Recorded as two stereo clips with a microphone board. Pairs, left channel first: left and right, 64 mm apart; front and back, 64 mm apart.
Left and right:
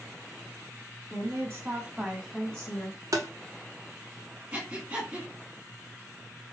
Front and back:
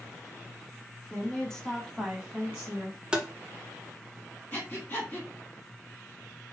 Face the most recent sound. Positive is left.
turn(degrees=-40)